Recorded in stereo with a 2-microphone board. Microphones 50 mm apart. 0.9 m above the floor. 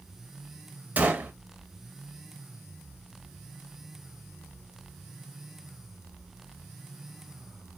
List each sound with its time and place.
1.0 s a gunshot: 30° right (ahead or behind), 0.7 m